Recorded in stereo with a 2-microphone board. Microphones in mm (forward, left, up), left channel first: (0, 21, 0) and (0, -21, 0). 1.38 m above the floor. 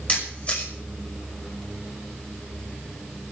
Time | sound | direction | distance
0.1 | a camera shutter | 30° left (ahead or behind) | 5.5 m